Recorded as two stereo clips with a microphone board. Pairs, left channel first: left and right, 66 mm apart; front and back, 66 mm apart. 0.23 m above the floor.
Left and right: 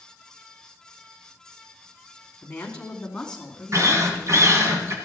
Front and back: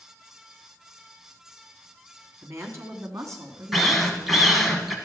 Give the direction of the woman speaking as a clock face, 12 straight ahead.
7 o'clock.